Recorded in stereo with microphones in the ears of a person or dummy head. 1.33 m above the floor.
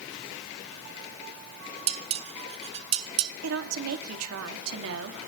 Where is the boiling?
No boiling in this recording.